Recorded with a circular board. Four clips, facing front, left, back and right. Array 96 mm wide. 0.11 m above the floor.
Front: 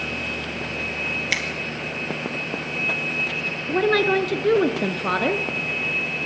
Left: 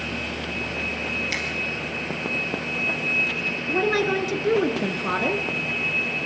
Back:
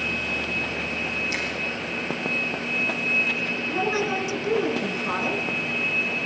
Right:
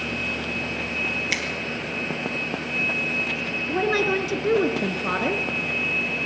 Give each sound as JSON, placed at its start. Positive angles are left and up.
{"t": 1.3, "sound": "a finger snap", "azimuth_deg": -25, "distance_m": 2.5}
{"t": 3.7, "sound": "a woman speaking", "azimuth_deg": 0, "distance_m": 1.4}